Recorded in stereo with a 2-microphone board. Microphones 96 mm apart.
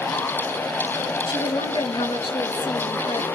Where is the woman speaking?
70° left (ahead or behind), 4 m; by 3.3 s 80° left, 6 m.